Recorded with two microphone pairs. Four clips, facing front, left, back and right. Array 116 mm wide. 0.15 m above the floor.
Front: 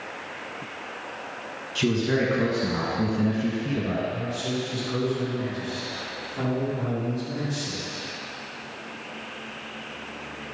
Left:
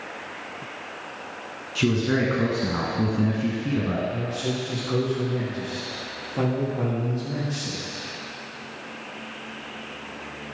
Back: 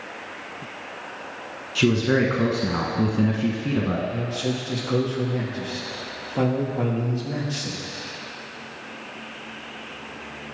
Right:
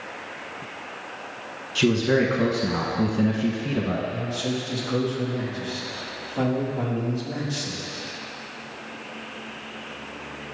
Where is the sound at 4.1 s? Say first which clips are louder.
Even, back 2 dB; 175° left, 4 m.